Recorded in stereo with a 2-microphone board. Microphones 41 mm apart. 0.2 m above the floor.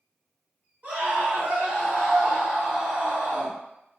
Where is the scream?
30° right (ahead or behind), 1.9 m.